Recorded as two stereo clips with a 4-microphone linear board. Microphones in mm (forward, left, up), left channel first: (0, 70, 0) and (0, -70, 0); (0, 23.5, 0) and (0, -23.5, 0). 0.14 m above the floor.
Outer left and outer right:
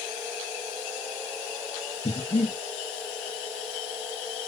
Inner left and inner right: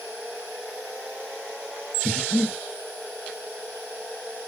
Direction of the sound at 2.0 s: 35° left (ahead or behind).